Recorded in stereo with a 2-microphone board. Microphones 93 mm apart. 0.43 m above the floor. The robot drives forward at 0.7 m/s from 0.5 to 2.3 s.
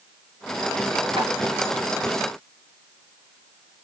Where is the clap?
70° right (ahead or behind), 5 m.